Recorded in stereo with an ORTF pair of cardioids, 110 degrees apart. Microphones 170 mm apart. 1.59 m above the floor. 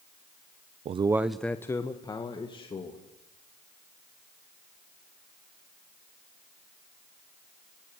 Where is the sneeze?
No sneeze in this recording.